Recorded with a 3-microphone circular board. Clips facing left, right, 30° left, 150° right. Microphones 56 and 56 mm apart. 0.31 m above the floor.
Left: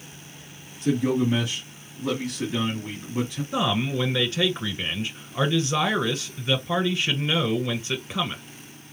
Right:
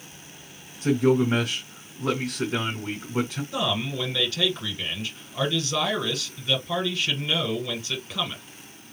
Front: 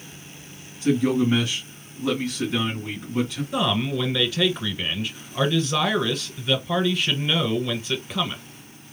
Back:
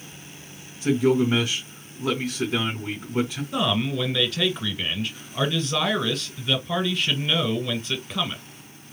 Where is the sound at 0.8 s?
80° right, 2.5 m.